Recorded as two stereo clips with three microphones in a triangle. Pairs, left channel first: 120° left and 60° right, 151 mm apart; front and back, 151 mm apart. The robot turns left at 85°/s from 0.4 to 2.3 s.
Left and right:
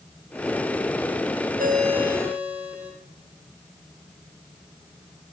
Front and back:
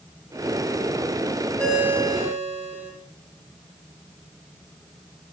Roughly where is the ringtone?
Right.